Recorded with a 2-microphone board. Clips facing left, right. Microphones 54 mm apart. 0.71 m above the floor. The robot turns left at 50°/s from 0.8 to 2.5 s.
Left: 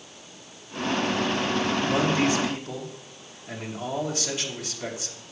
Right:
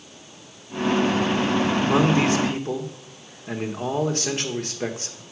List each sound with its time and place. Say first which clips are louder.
1.8 s a man speaking: right 4 dB; 80° right, 1.8 m; by 5.2 s 115° right, 1.8 m